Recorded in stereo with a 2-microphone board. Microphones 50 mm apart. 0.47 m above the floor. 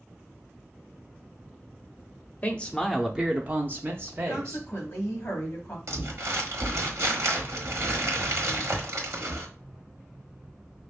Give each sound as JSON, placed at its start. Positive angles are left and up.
{"t": 2.4, "sound": "a man speaking", "side_deg": 30, "distance_m": 0.7}
{"t": 4.3, "sound": "a woman speaking", "side_deg": 45, "distance_m": 3.0}
{"t": 5.9, "sound": "crumpling", "side_deg": -70, "distance_m": 1.2}